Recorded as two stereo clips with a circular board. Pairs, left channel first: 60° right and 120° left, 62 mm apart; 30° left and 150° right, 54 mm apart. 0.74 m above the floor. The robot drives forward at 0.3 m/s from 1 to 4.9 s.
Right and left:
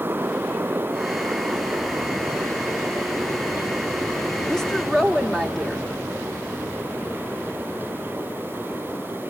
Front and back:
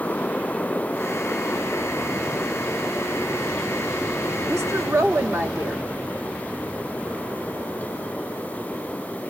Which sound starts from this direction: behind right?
A woman speaking, at 4.5 s.